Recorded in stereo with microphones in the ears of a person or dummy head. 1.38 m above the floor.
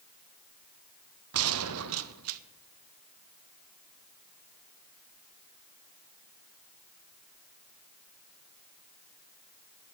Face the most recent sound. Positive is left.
turn(degrees=-75)  # may be behind; listen again after turning